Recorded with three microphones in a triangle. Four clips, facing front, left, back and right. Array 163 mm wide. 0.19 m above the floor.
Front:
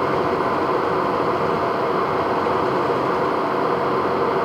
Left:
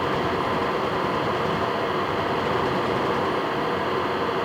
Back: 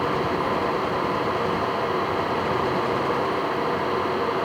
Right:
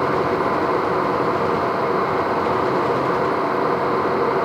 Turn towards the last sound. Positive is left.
No sound to turn to.